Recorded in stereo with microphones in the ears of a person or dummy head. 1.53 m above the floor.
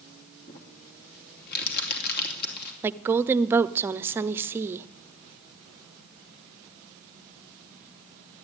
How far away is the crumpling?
About 2.5 m.